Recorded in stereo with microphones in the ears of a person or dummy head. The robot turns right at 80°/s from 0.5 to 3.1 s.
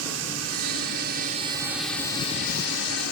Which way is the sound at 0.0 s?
110° right.